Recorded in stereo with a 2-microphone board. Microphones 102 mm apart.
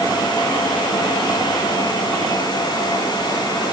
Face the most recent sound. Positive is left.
No sound to turn to.